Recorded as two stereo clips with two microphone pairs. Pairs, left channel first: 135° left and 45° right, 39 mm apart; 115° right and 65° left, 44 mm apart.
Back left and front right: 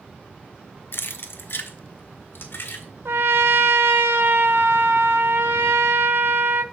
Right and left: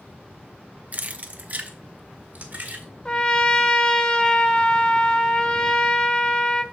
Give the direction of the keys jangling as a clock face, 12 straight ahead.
8 o'clock.